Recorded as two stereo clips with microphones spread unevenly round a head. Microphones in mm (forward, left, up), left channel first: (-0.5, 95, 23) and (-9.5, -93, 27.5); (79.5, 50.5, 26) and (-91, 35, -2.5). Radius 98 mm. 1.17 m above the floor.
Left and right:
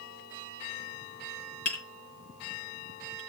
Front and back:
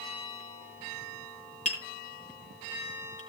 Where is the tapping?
55° left, 4.5 m.